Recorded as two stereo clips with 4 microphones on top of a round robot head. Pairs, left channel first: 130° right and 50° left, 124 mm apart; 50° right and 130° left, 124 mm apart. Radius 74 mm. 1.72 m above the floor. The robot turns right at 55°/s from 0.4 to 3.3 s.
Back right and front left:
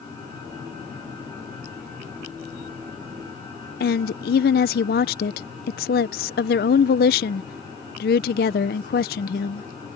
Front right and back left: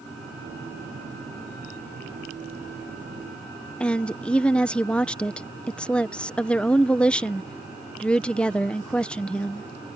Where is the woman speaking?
130° right.